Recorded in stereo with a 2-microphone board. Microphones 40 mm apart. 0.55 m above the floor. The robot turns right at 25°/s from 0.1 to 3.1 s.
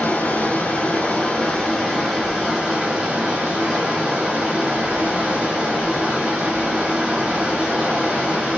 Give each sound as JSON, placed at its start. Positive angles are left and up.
{"t": 0.0, "sound": "running water", "azimuth_deg": 125, "distance_m": 2.5}